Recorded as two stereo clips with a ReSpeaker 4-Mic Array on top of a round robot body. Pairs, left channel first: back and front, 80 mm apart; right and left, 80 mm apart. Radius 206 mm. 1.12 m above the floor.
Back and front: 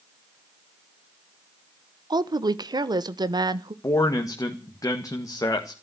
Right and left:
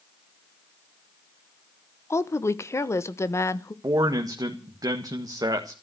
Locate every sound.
2.1 s a woman speaking: 35° right, 1.3 m
3.8 s a man speaking: 130° left, 1.9 m